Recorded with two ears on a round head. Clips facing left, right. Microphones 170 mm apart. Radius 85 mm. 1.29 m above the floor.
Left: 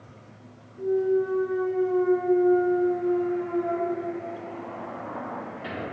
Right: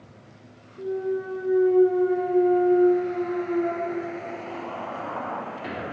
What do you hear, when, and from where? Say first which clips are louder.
0.8 s a clunk: left 4 dB; 20° right (ahead or behind), 2 m